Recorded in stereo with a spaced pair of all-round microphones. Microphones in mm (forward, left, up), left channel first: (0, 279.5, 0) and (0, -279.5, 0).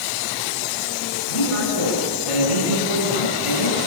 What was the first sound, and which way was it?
A man speaking, 70° left (ahead or behind).